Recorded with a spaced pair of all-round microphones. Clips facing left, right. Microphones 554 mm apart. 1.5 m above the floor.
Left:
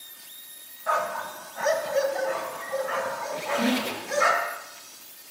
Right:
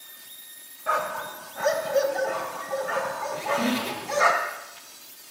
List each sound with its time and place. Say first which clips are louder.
0.9 s a dog barking: even; 45° right (ahead or behind), 3 m; by 4.3 s 70° right (ahead or behind), 4 m
3.3 s a squeak: left 1 dB; 5° right (ahead or behind), 5 m